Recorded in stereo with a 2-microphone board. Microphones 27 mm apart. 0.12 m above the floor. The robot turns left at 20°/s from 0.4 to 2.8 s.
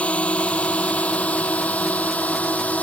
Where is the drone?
60° left (ahead or behind); by 2.8 s 70° left (ahead or behind).